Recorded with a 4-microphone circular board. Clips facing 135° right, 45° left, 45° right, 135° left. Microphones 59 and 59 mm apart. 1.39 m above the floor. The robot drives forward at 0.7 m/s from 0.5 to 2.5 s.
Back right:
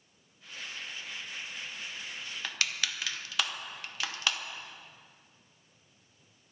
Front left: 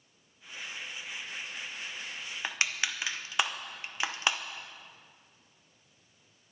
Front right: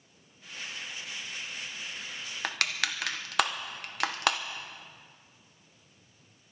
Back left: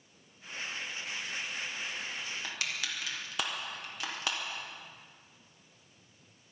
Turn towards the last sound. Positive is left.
turn(degrees=-20)